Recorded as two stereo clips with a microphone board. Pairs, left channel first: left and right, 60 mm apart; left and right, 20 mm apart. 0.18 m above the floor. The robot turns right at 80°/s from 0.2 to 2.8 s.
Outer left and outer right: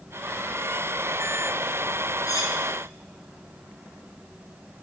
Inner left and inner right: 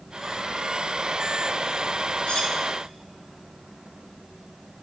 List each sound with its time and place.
2.3 s cutlery clinking: 60° left (ahead or behind), 1.9 m; by 2.5 s 75° left (ahead or behind), 1.9 m